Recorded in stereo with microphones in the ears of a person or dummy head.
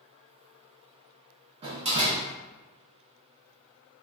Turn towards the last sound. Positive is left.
turn(degrees=-30)  # may be behind; listen again after turning